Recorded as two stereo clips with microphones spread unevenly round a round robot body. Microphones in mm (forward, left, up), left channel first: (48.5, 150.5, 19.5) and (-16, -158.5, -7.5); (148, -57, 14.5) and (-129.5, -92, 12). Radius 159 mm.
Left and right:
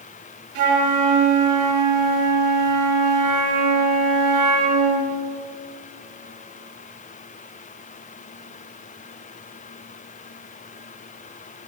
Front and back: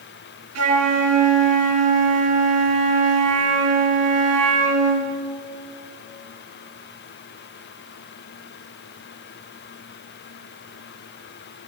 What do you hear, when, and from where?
0.6 s a flute: 140° right, 7 m